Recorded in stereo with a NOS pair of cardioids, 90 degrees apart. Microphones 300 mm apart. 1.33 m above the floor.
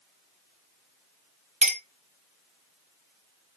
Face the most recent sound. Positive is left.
turn(degrees=-25)